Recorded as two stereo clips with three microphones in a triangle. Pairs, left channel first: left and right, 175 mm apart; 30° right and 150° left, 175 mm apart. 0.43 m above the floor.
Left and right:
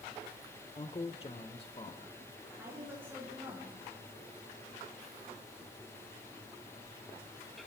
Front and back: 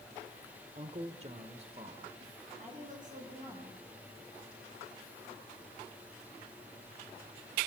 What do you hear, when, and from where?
0.8 s a man speaking: 120° left, 1.0 m
2.5 s a woman speaking: 170° right, 7 m